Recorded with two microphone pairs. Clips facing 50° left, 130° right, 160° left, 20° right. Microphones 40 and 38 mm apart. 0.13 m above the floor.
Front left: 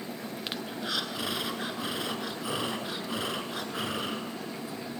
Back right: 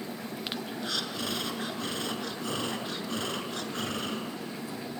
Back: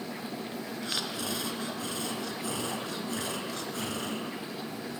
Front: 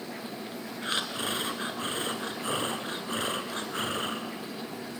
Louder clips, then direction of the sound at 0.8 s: Front left 2 dB, front 5 dB; 25° right.